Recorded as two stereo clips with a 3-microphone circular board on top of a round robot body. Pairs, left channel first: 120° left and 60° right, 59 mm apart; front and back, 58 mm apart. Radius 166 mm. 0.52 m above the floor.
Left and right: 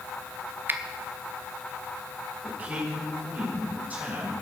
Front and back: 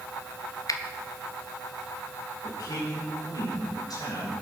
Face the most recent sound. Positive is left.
turn(degrees=0)